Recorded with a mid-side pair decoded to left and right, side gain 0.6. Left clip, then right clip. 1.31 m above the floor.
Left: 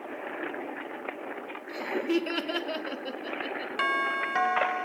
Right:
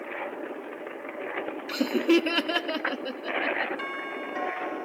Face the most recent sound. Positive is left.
turn(degrees=50)